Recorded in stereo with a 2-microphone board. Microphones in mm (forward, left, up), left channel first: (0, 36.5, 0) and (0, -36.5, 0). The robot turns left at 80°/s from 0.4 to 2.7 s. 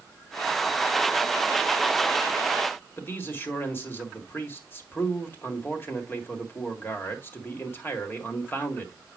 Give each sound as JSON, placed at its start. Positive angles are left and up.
{"t": 3.0, "sound": "a man speaking", "side_deg": 30, "distance_m": 1.6}